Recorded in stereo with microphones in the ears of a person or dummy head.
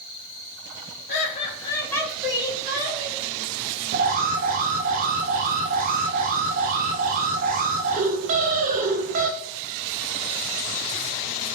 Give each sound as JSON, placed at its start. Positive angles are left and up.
{"t": 1.1, "sound": "laughter", "side_deg": 50, "distance_m": 0.7}
{"t": 3.9, "sound": "an alarm", "side_deg": -45, "distance_m": 0.5}